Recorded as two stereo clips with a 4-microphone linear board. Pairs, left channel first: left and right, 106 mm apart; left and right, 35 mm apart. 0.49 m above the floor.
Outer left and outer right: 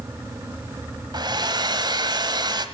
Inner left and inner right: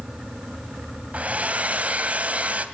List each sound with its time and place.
1.1 s a hair dryer: 45° right (ahead or behind), 1.6 m